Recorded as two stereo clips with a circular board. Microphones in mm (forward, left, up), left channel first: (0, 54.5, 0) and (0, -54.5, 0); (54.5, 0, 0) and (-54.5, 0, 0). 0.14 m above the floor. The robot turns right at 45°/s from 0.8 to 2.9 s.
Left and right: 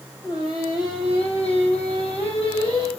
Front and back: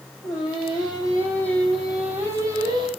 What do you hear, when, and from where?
0.2 s singing: 40° left, 7 m; by 2.9 s 135° left, 7 m